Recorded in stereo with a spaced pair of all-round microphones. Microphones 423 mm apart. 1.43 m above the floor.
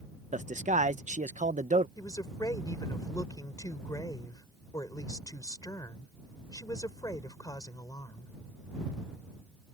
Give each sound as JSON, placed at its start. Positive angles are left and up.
{"t": 0.3, "sound": "a man speaking", "side_deg": -15}
{"t": 2.0, "sound": "a woman speaking", "side_deg": 10}